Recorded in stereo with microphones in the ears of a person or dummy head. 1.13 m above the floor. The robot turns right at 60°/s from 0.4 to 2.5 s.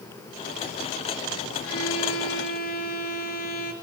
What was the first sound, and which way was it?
A violin, 75° left.